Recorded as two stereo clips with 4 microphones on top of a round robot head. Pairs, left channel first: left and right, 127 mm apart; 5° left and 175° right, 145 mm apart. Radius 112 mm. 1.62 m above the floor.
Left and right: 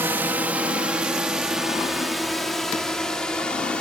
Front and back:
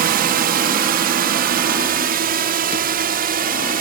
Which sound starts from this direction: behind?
A drone, at 0.0 s.